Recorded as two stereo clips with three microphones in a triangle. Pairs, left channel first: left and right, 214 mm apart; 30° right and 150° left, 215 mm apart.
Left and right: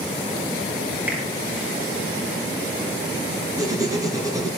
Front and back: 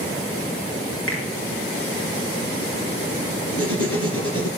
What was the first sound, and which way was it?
A finger snap, 5° right.